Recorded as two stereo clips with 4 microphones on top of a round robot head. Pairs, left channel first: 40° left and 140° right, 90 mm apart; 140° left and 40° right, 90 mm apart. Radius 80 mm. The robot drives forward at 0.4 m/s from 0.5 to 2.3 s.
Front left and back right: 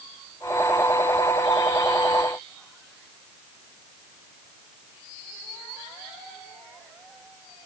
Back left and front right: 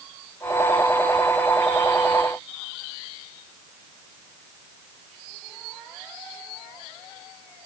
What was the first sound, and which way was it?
Only background noise.